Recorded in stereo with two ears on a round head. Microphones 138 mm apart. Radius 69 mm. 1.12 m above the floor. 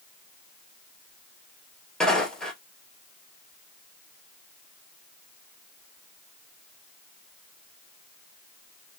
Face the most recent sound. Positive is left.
turn(degrees=5)  # may be behind; listen again after turning